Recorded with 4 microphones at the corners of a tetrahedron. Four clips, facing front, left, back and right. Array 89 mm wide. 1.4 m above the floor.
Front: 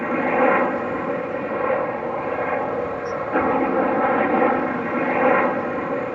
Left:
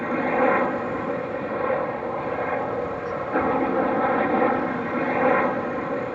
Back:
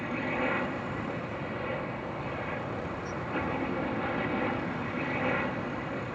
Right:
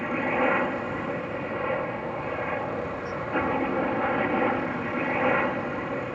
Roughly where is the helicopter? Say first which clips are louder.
Left 4 dB, front 13 dB; ahead left.